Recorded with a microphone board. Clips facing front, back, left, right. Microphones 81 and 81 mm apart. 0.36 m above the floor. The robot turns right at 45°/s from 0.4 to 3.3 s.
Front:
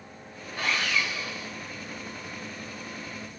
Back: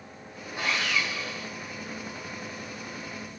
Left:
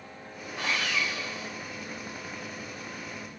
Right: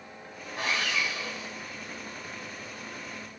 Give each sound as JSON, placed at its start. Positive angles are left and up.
{"t": 0.6, "sound": "sawing", "azimuth_deg": -110, "distance_m": 3.5}